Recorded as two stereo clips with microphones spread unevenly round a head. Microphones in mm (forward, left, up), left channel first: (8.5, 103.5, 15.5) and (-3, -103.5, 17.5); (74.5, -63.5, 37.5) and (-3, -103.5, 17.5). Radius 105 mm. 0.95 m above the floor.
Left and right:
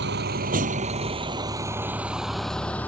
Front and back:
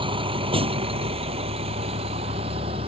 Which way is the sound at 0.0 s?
135° right.